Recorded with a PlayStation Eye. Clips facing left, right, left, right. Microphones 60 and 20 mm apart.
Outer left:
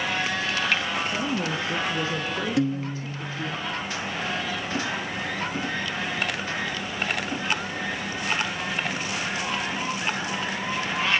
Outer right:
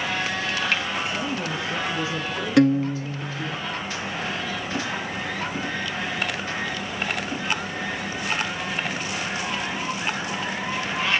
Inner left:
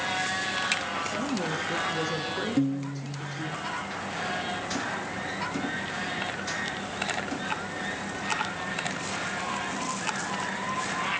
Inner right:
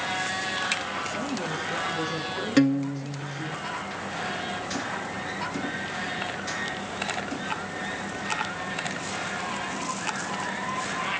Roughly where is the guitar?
Right.